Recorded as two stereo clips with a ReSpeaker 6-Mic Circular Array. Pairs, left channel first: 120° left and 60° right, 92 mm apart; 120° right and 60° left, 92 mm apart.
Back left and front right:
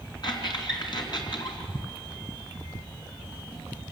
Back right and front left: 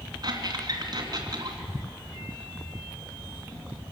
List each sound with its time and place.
0.2 s a squeak: 95° left, 3 m